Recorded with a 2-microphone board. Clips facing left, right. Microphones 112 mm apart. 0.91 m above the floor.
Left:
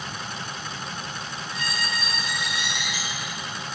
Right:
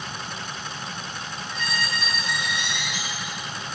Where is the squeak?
10° left (ahead or behind), 3.5 m.